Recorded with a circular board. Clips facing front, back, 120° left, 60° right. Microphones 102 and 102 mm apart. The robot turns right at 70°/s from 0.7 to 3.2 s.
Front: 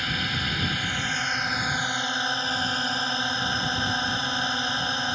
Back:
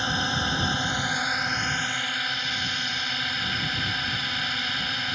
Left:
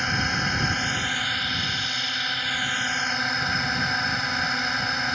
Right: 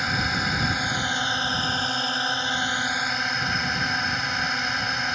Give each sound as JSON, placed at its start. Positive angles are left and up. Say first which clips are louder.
{"t": 0.0, "sound": "a drone", "louder": "back 3 dB, even", "azimuth_deg": -145}